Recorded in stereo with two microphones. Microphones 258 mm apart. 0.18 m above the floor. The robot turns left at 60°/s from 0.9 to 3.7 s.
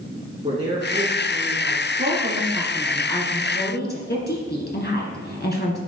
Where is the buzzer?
I don't hear a buzzer.